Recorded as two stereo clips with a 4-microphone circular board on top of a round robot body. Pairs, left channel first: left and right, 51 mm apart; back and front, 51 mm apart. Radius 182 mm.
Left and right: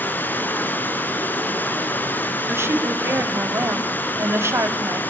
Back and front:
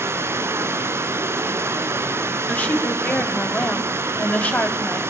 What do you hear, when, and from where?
0.0 s running water: 35° left, 1.7 m
2.5 s a woman speaking: 120° right, 4 m